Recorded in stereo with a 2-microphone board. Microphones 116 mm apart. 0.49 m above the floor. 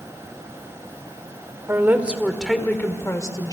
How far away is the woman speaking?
About 1.9 m.